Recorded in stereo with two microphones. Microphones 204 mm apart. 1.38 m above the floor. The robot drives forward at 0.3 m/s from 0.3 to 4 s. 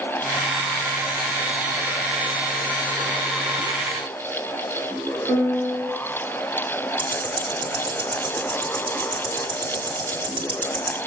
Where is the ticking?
25° right (ahead or behind), 1.7 m.